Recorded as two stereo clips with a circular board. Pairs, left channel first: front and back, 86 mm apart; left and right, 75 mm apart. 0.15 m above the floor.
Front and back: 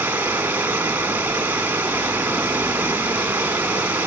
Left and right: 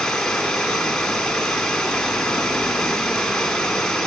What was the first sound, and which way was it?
Running water, 165° left.